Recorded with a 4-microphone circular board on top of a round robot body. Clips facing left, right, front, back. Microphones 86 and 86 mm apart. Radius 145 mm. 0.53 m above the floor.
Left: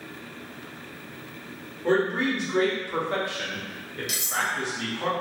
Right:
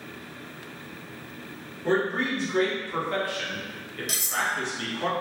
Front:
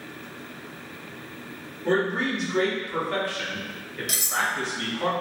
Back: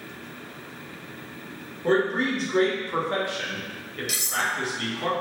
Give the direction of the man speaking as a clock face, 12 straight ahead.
7 o'clock.